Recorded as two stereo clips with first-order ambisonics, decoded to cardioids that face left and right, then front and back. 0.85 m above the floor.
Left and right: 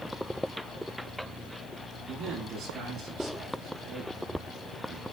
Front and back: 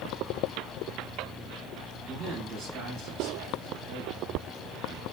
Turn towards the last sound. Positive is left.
turn(degrees=-150)